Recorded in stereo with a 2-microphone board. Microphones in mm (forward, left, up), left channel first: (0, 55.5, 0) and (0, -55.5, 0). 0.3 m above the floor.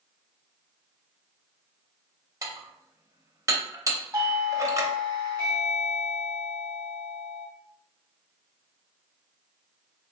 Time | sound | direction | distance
2.4 | dishes clattering | 30° right (ahead or behind) | 0.6 m
4.1 | a doorbell | 25° right (ahead or behind) | 1.7 m